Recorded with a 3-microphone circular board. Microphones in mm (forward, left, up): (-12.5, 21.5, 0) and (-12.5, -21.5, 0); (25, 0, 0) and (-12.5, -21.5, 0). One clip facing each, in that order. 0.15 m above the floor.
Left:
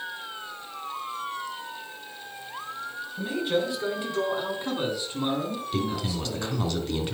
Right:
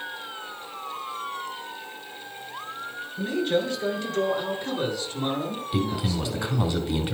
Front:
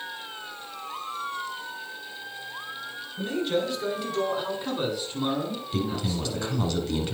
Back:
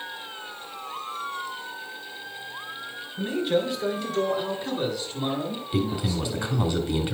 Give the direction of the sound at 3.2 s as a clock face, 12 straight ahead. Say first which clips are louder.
Right 2 dB, back 2 dB; 7 o'clock.